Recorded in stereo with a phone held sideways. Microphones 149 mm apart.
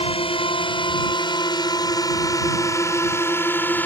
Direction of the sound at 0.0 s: 35° left (ahead or behind).